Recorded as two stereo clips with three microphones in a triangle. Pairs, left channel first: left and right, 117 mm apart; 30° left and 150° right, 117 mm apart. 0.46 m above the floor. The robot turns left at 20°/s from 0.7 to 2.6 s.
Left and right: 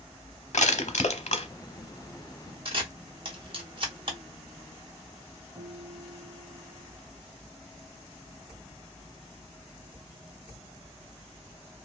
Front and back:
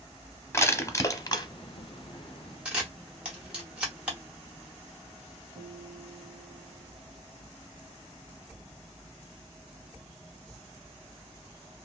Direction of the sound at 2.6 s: 70° right.